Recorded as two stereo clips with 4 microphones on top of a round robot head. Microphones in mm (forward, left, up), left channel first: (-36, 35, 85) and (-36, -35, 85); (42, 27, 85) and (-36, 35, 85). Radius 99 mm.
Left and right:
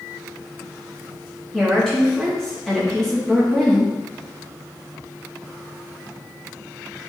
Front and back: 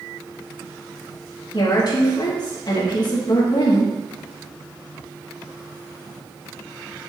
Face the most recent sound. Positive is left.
turn(degrees=5)